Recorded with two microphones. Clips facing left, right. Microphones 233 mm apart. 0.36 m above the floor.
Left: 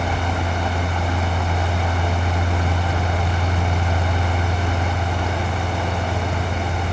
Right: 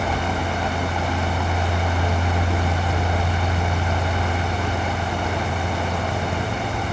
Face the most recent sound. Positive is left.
No sound to turn to.